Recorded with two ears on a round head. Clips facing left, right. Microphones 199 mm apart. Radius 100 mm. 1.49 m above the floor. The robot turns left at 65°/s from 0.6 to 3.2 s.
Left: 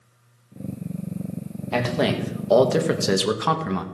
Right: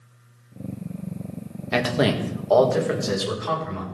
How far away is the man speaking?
About 1.7 m.